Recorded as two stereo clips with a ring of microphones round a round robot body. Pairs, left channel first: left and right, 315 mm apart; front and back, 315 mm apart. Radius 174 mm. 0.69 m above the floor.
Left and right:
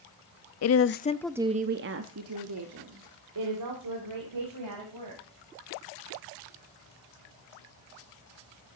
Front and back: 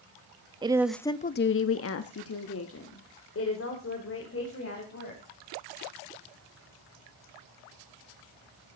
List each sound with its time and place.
0.6 s a woman speaking: 110° left, 0.8 m; by 5.2 s 50° right, 4 m